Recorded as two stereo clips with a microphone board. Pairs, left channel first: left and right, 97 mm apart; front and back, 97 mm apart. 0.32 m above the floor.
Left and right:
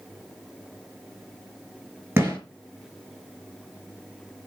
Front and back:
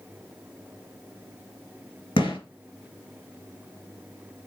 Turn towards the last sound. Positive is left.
turn(degrees=-25)